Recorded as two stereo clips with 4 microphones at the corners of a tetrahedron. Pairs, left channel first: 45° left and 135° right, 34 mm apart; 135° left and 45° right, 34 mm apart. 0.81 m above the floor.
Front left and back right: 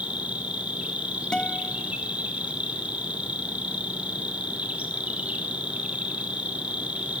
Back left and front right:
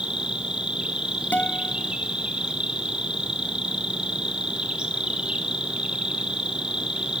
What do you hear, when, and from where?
0.0 s an insect: 100° right, 3 m
1.3 s a guitar: 110° left, 2 m